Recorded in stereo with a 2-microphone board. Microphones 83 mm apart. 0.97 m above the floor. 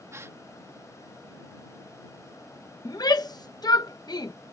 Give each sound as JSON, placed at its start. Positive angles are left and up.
{"t": 0.1, "sound": "a gasp", "side_deg": -35}
{"t": 2.9, "sound": "a shout", "side_deg": 55}